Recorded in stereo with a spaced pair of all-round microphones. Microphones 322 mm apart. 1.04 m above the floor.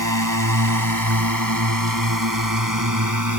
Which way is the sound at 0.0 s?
75° right (ahead or behind).